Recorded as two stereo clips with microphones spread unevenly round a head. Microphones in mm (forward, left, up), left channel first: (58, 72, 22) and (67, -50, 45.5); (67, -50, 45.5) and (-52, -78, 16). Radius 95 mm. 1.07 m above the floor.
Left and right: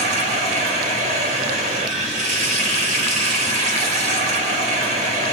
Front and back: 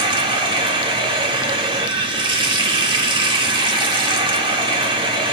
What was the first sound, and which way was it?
Running water, 130° right.